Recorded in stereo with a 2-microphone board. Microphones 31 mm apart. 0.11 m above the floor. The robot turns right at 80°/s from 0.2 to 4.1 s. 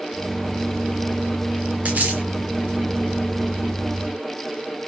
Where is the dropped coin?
50° right (ahead or behind), 2.5 m; by 2.2 s 80° right, 2.5 m.